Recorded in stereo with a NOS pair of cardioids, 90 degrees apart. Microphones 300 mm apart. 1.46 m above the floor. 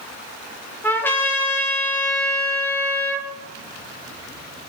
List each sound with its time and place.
0.8 s a trumpet: 5° left, 1.7 m